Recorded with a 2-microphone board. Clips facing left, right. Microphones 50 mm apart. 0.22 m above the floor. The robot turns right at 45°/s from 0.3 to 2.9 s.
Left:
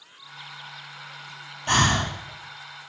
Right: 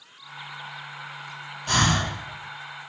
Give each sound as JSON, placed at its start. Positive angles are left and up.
{"t": 1.7, "sound": "breathing", "side_deg": 35, "distance_m": 1.5}